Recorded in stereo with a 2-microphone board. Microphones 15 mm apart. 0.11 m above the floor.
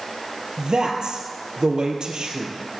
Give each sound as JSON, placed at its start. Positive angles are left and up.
{"t": 0.6, "sound": "a man speaking", "side_deg": -55, "distance_m": 3.5}